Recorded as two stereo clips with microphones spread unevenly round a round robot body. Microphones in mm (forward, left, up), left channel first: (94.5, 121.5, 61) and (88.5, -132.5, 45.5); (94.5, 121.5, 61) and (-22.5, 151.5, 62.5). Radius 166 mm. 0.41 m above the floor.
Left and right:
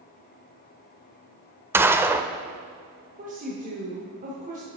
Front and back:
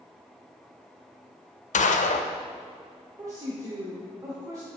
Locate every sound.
1.7 s a gunshot: 10° right, 0.5 m
3.2 s a woman speaking: 135° right, 1.1 m